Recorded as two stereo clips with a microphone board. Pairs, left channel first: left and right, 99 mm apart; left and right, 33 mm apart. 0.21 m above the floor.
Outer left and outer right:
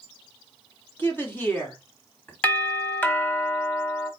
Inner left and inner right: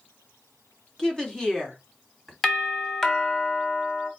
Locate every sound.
1.0 s a woman speaking: 20° left (ahead or behind), 1.6 m
2.4 s a doorbell: 15° left (ahead or behind), 1.4 m